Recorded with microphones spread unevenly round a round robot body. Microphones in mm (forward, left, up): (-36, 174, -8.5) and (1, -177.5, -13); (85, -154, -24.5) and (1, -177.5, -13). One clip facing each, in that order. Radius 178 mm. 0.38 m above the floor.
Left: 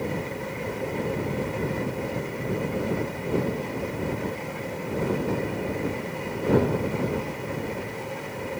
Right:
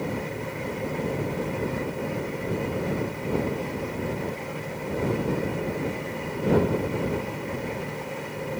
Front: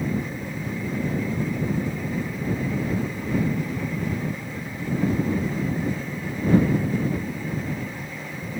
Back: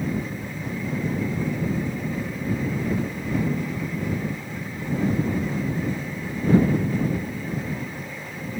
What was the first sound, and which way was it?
Only background noise.